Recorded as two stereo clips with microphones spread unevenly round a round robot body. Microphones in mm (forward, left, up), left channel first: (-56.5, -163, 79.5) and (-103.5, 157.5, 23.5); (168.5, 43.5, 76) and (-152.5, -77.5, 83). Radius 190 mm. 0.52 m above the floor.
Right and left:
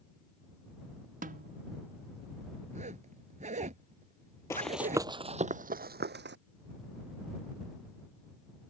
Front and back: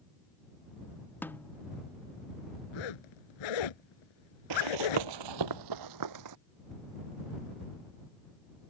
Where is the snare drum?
100° left.